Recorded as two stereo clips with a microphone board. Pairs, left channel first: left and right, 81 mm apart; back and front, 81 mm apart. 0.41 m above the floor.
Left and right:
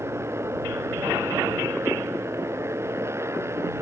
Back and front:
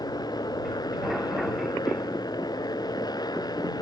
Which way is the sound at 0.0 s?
145° right.